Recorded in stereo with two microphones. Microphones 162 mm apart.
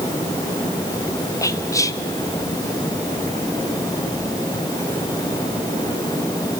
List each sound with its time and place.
1.4 s whispering: 20° left (ahead or behind), 0.6 m